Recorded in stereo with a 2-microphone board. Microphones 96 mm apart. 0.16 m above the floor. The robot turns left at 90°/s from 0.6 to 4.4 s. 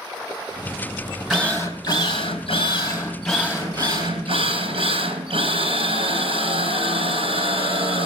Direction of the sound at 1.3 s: Straight behind.